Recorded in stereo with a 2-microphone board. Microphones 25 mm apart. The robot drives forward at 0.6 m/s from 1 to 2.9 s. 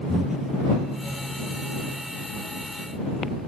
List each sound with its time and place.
0.1 s breathing: 35° right (ahead or behind)